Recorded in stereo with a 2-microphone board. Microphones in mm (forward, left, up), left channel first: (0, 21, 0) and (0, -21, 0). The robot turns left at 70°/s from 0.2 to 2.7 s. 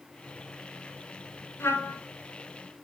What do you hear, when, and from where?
1.6 s a trumpet: 80° left, 1.2 m; by 2.0 s 50° left (ahead or behind), 1.2 m